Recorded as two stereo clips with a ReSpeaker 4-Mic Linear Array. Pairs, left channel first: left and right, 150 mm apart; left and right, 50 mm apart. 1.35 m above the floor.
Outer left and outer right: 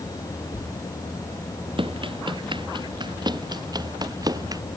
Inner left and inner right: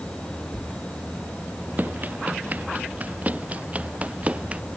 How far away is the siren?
No siren in this recording.